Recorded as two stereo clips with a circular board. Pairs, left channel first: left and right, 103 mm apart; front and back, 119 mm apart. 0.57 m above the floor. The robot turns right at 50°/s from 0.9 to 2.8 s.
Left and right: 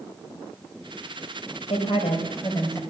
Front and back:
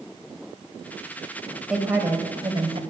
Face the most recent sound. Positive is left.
turn(degrees=150)